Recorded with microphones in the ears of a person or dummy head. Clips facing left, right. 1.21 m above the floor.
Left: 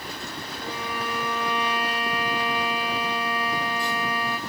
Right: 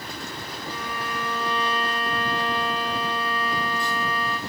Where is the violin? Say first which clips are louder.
Left 2 dB; 10° left (ahead or behind), 2 m.